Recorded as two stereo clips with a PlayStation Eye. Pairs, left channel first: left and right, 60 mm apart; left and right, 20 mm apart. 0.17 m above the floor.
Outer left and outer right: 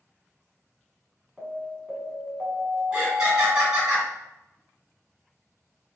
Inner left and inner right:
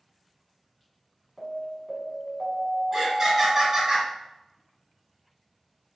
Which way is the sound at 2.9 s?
10° right (ahead or behind).